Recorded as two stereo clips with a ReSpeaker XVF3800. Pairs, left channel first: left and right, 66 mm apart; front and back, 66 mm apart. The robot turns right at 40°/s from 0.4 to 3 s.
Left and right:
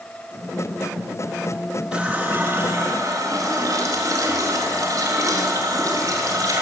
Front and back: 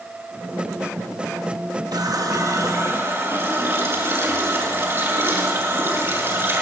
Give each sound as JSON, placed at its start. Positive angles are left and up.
{"t": 1.9, "sound": "a running tap", "azimuth_deg": -170, "distance_m": 6.5}